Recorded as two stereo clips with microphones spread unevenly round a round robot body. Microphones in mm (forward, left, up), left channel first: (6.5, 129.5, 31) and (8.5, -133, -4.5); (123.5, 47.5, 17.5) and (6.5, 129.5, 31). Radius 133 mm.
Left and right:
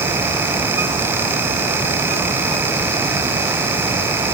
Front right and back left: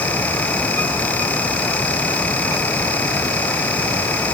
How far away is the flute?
No flute in this recording.